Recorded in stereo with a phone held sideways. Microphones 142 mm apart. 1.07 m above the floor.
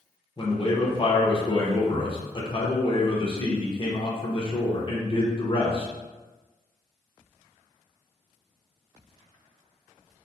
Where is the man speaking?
35° left (ahead or behind), 0.6 m.